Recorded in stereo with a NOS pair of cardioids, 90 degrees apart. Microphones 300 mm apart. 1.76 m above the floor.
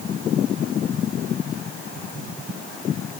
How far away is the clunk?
I don't hear a clunk.